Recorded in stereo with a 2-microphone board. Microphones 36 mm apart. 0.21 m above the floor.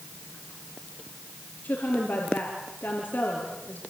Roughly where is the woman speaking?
Left.